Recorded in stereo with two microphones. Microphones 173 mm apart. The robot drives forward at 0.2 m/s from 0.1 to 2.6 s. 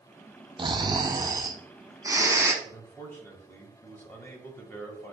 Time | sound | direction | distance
0.6 | snoring | 30° right (ahead or behind) | 0.5 m
2.6 | a man speaking | 10° left (ahead or behind) | 1.5 m